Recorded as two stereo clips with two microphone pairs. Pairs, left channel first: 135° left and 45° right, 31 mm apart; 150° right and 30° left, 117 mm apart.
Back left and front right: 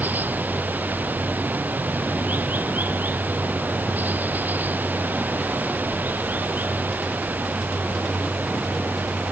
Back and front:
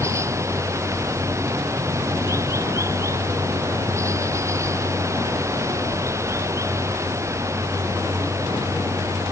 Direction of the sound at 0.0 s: 35° right.